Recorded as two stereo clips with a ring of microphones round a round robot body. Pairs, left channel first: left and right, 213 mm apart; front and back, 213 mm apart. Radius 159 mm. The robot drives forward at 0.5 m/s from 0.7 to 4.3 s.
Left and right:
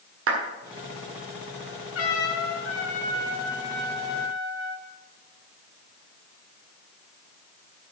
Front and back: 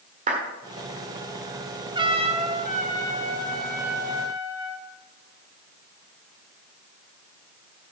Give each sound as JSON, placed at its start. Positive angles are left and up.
{"t": 0.3, "sound": "a clap", "azimuth_deg": -120, "distance_m": 1.5}
{"t": 1.9, "sound": "a trumpet", "azimuth_deg": 110, "distance_m": 1.6}